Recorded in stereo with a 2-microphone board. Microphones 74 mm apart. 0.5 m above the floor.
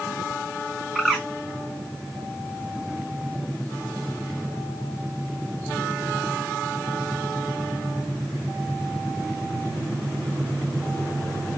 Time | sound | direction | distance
0.9 | a bird | 5° right (ahead or behind) | 1.6 m